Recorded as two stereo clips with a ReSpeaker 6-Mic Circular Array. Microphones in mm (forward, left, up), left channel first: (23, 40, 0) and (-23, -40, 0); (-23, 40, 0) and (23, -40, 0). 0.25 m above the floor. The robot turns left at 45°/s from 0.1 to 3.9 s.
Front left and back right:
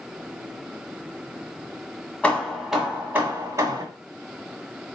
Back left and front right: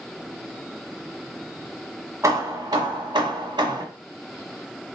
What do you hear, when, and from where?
2.2 s hammering: 15° right, 1.4 m; by 3.8 s 85° right, 1.4 m